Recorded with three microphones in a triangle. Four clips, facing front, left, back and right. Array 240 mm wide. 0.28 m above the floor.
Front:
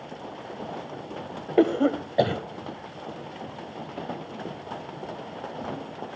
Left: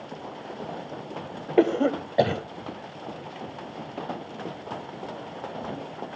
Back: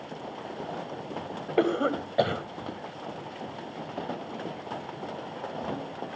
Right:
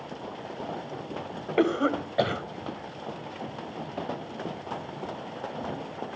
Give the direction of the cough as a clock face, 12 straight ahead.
10 o'clock.